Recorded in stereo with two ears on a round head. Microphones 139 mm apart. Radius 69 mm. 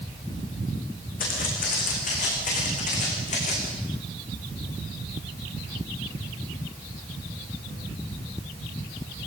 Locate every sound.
1.2 s footsteps: 60° left (ahead or behind), 8 m; by 3.7 s 50° left (ahead or behind), 9 m